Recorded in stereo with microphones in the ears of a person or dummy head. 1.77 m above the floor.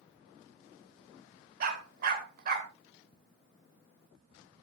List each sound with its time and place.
1.6 s a dog barking: 55° right (ahead or behind), 2.5 m
3.1 s ticking: 30° left (ahead or behind), 1.0 m